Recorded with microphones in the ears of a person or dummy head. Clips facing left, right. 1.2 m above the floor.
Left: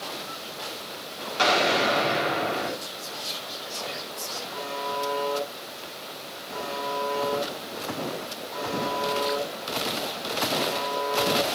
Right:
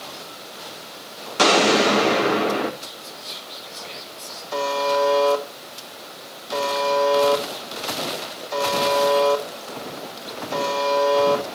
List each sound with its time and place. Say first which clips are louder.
1.4 s an explosion: right 7 dB; 60° right (ahead or behind), 2 m
2.8 s whispering: left 1 dB; 75° left (ahead or behind), 5 m
4.5 s a buzzer: right 12 dB; 85° right, 3.5 m